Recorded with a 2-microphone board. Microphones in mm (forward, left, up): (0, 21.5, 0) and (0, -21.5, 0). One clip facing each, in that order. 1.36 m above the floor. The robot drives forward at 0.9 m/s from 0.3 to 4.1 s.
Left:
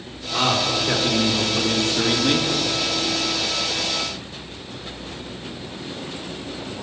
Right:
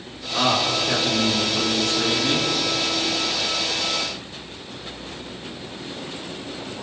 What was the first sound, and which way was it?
A man speaking, 25° left (ahead or behind).